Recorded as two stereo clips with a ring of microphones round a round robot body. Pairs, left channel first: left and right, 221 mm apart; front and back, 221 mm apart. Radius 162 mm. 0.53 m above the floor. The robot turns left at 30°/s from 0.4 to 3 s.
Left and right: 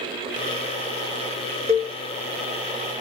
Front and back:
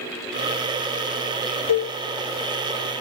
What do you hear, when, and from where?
1.7 s a cowbell: 25° right, 1.1 m; by 1.9 s 30° right, 1.1 m